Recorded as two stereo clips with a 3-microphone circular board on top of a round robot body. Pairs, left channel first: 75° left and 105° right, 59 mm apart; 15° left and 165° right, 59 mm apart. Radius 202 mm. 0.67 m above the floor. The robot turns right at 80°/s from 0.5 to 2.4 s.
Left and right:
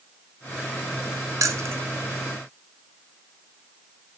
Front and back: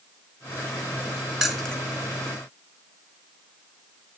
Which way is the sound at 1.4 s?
85° right.